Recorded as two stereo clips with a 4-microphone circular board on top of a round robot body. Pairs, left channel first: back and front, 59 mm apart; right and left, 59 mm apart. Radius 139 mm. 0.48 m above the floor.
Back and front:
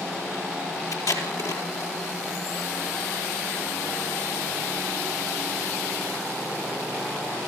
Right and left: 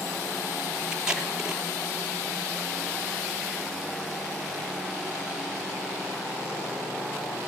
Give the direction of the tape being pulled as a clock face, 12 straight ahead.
6 o'clock.